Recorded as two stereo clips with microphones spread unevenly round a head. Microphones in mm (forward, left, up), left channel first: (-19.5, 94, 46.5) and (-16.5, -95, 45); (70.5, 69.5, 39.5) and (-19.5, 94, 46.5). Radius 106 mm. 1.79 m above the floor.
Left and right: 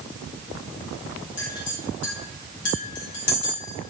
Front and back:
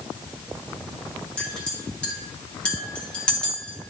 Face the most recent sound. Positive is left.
turn(degrees=65)